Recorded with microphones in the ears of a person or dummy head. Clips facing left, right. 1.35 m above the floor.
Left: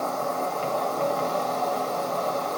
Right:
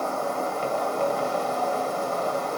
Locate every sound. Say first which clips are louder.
0.0 s an insect: even; 15° right (ahead or behind), 2.0 m